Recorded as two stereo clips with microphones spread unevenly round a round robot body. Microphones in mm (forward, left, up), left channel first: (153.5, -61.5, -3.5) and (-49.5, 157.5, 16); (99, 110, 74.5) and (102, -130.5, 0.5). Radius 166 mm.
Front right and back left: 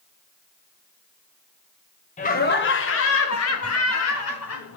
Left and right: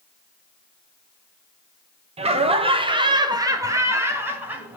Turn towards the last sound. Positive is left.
turn(degrees=-15)